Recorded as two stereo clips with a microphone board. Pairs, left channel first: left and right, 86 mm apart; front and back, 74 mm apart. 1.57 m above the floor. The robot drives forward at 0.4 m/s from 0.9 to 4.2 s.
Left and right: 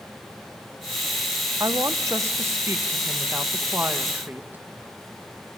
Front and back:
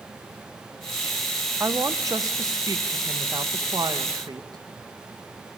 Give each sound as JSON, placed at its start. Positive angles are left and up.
{"t": 1.6, "sound": "a woman speaking", "azimuth_deg": -135, "distance_m": 1.0}